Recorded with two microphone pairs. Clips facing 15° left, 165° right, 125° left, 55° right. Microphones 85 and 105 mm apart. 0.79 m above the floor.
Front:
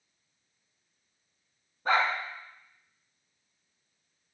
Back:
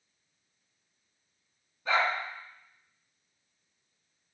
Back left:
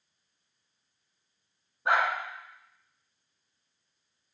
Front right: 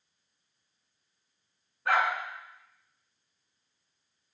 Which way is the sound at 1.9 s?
55° left.